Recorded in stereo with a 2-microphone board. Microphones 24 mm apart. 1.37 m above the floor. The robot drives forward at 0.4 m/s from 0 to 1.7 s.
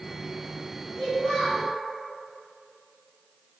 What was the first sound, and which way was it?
A child speaking, 40° left (ahead or behind).